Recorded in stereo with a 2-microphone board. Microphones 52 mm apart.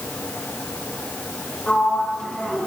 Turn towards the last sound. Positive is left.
turn(degrees=20)  # may be behind; listen again after turning